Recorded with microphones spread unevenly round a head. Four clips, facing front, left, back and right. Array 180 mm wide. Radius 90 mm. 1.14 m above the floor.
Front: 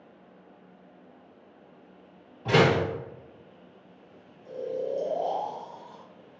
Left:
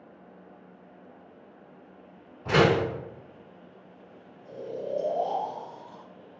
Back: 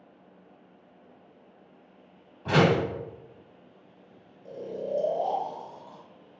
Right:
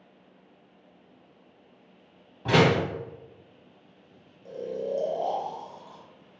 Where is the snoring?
135° right, 0.7 m.